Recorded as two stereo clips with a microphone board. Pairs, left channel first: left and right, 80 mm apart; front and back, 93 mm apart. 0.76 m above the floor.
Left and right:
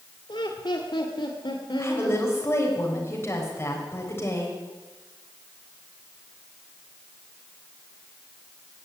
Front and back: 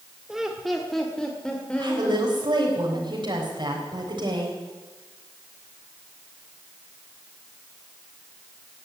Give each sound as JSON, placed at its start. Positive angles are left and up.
{"t": 0.3, "sound": "laughter", "azimuth_deg": 95, "distance_m": 1.5}
{"t": 1.8, "sound": "a woman speaking", "azimuth_deg": 150, "distance_m": 3.5}